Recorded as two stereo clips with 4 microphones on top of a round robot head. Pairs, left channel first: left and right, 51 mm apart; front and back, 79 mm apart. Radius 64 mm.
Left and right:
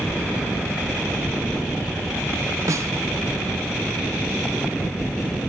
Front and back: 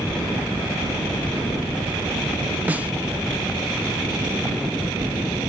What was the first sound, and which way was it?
A snare drum, 105° right.